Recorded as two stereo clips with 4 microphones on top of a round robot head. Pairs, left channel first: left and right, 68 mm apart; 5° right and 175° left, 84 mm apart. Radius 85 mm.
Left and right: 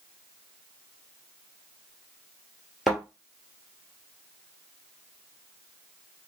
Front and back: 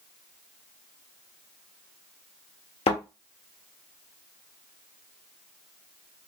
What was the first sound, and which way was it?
A thud, straight ahead.